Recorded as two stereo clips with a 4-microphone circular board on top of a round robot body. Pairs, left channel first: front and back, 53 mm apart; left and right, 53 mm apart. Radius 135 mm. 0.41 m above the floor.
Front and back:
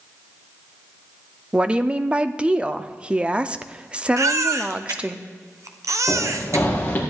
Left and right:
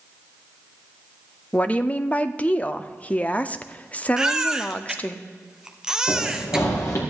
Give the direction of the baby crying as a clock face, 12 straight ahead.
6 o'clock.